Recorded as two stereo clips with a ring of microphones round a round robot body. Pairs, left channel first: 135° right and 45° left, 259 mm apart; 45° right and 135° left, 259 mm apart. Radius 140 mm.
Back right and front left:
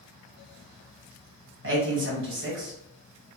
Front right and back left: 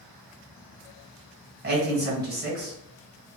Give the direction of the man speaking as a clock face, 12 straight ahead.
9 o'clock.